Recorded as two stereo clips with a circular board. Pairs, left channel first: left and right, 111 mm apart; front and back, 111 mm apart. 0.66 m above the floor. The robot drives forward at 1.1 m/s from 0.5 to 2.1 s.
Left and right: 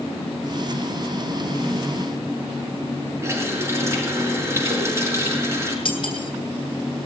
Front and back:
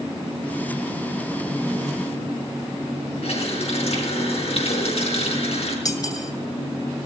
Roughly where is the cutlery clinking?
Ahead left.